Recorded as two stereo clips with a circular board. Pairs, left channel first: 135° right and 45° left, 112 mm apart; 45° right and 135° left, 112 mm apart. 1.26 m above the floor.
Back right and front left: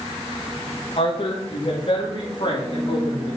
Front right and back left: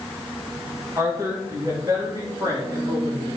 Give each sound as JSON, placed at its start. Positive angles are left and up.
{"t": 1.0, "sound": "a woman speaking", "azimuth_deg": -160, "distance_m": 1.6}